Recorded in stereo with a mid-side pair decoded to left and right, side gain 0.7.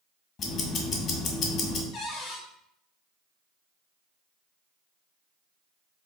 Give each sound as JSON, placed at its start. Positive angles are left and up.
{"t": 0.4, "sound": "ticking", "azimuth_deg": 45, "distance_m": 1.8}
{"t": 1.9, "sound": "a cupboard door", "azimuth_deg": 50, "distance_m": 1.3}